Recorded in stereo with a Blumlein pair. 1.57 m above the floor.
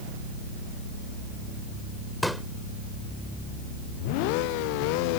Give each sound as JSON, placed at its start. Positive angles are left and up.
{"t": 2.2, "sound": "a pop", "azimuth_deg": 0}